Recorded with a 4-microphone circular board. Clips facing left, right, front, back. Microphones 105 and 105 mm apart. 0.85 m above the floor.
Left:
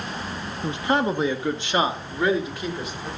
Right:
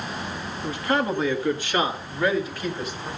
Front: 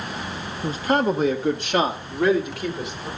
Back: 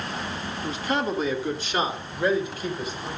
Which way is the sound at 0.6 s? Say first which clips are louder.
Left 2 dB, front 6 dB; 30° left.